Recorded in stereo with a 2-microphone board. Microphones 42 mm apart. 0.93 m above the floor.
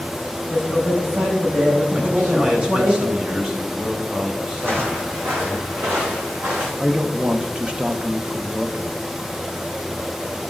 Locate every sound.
0.5 s a man speaking: 55° right (ahead or behind), 5 m
1.9 s a man speaking: 40° right (ahead or behind), 2.5 m
4.6 s footsteps: 65° right (ahead or behind), 2 m; by 6.7 s 75° right (ahead or behind), 4 m
6.8 s a man speaking: 25° right (ahead or behind), 0.8 m